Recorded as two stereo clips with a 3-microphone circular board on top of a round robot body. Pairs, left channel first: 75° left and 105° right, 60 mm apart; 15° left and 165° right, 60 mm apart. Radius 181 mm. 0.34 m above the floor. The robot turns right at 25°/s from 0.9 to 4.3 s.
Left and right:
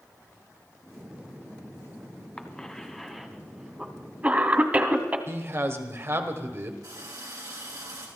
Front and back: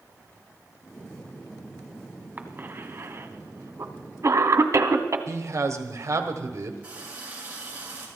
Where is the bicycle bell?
I don't hear a bicycle bell.